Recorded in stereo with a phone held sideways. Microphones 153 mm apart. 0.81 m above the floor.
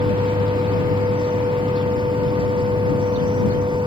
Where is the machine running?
30° right (ahead or behind).